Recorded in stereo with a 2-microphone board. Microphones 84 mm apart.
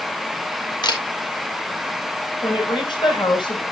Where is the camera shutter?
60° left (ahead or behind), 4 m.